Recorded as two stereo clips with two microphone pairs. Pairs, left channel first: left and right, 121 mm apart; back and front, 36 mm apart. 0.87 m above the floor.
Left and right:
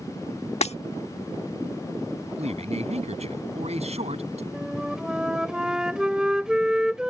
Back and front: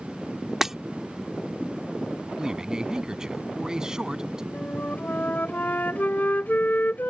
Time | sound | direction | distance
0.6 | breaking glass | 80° left | ?
2.4 | a man speaking | 70° right | ?
4.5 | a flute | 170° right | ?